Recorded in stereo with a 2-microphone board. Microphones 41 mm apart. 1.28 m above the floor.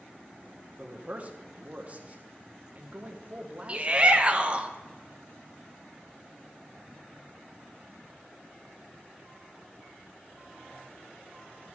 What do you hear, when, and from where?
0.8 s a man speaking: 35° right (ahead or behind), 1.3 m
3.7 s a shout: 30° right (ahead or behind), 1.0 m